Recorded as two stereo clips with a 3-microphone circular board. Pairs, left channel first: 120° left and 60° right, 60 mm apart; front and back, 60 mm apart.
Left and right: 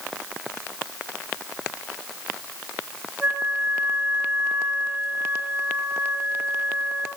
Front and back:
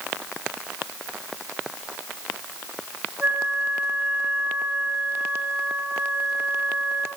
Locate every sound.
3.2 s a flute: 105° right, 3.5 m